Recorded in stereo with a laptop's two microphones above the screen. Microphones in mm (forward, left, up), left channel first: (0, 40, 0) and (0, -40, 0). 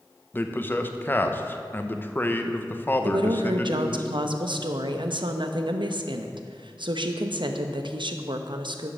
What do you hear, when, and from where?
0.3 s a man speaking: 25° left (ahead or behind), 0.8 m
3.0 s a woman speaking: 75° right (ahead or behind), 0.8 m